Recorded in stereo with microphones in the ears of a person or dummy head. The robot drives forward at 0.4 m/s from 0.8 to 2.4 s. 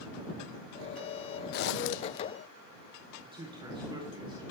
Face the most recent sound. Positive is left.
turn(degrees=-25)  # may be behind; listen again after turning